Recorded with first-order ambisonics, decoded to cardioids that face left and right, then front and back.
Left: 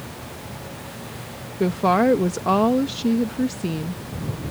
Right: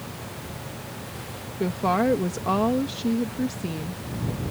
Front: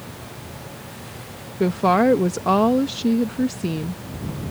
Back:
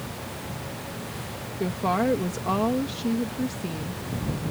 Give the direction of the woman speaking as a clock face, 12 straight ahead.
11 o'clock.